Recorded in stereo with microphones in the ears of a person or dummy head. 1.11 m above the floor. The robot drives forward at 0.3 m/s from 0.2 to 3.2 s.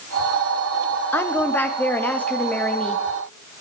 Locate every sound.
1.1 s a woman speaking: 15° left (ahead or behind), 1.2 m; by 3.0 s 10° left (ahead or behind), 1.7 m